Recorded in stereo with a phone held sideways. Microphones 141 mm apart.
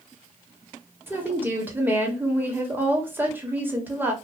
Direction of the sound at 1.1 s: 15° right (ahead or behind).